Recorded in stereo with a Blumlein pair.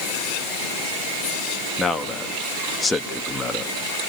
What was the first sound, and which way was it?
A man speaking, 10° left.